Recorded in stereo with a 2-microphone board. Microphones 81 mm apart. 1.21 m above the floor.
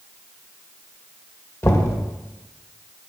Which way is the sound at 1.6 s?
35° left (ahead or behind).